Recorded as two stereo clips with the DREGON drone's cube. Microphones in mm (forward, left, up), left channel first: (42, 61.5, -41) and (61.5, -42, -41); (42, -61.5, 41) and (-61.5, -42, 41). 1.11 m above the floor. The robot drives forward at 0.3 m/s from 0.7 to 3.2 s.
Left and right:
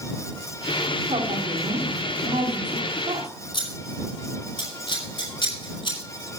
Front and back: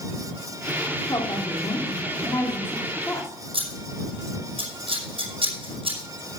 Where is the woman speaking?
65° right, 2.5 m; by 3.3 s 80° right, 2 m.